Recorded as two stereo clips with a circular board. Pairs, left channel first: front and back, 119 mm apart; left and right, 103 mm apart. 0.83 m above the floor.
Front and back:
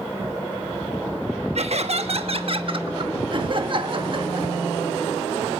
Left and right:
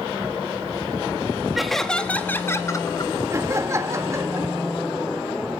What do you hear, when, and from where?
1.6 s laughter: straight behind, 1.1 m; by 3.1 s 135° left, 1.3 m
3.3 s laughter: 145° right, 1.3 m